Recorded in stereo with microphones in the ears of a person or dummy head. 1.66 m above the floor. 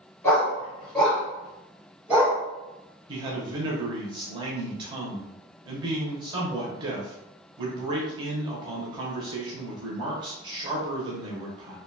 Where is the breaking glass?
No breaking glass in this recording.